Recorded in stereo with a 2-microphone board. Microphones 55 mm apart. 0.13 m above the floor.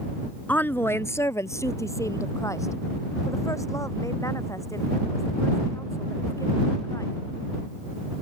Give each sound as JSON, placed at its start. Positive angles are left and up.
{"t": 0.5, "sound": "a woman speaking", "side_deg": 30}